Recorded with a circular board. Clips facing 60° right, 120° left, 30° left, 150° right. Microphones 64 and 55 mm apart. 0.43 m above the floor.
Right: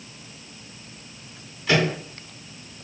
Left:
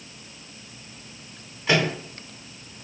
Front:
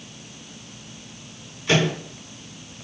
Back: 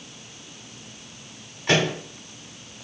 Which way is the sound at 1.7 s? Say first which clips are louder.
Right 1 dB, front 1 dB; 175° right.